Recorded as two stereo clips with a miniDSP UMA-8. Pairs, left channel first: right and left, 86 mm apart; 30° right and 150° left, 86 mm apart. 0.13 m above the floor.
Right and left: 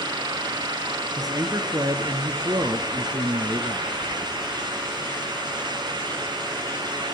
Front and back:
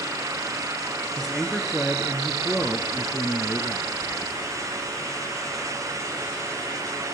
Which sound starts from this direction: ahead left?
A man speaking, at 1.2 s.